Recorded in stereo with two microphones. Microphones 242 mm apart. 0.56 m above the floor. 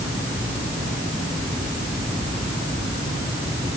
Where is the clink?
No clink in this recording.